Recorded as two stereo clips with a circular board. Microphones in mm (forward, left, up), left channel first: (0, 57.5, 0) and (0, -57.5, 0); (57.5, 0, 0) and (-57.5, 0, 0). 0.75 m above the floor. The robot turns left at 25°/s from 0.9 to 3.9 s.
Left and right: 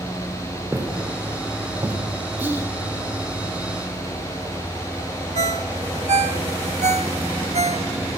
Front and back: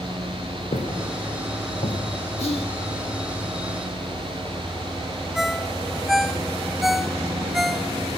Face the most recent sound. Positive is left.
turn(degrees=-90)